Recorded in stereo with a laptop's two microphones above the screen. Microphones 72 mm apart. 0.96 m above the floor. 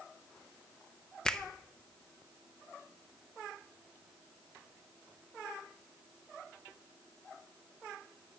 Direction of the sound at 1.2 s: 10° left (ahead or behind).